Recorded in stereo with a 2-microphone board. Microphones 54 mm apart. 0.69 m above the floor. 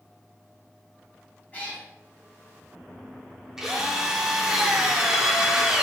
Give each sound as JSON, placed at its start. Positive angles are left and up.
{"t": 1.5, "sound": "a cat meowing", "side_deg": 30, "distance_m": 3.0}
{"t": 3.6, "sound": "a drill", "side_deg": -10, "distance_m": 1.1}